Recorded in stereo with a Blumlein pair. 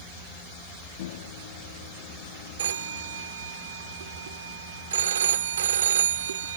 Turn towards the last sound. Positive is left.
turn(degrees=-60)